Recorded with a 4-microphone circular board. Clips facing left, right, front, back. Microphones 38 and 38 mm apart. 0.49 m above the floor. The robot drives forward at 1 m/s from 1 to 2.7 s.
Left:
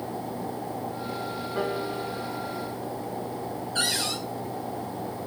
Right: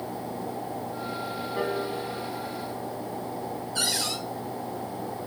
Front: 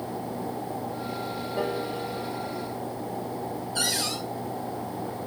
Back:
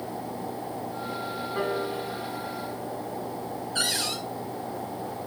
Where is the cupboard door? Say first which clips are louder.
Left 2 dB, back 1 dB; 135° left, 3 m.